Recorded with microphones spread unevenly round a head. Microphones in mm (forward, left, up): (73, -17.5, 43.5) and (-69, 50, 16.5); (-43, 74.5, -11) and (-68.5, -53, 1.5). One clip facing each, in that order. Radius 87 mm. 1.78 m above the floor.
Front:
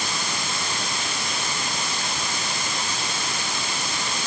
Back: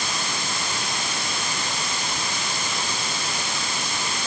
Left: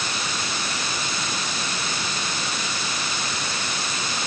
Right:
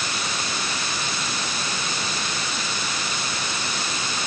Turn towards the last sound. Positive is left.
No sound to turn to.